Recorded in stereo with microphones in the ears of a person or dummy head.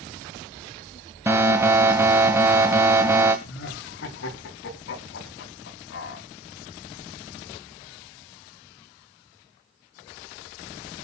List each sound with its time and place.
1.3 s an alarm: 15° right (ahead or behind), 1.5 m
3.5 s laughter: 75° left (ahead or behind), 3 m